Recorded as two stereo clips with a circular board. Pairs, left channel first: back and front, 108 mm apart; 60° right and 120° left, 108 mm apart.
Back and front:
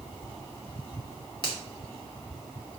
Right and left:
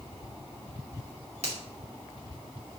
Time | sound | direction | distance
1.4 | a finger snap | 135° left | 3 m